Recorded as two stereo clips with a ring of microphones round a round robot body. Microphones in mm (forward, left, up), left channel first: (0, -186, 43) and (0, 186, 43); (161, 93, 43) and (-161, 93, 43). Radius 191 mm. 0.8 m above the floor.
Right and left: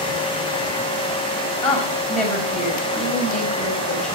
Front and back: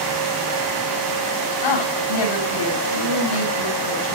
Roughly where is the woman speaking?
Ahead.